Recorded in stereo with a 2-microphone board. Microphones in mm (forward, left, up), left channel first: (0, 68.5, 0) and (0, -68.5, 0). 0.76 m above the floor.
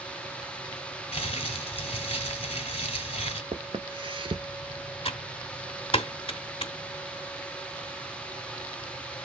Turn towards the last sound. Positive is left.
turn(degrees=40)  # may be behind; listen again after turning